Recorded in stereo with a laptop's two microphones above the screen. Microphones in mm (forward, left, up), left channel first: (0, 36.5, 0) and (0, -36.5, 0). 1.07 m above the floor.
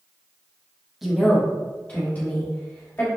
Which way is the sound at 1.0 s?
Centre (ahead or behind).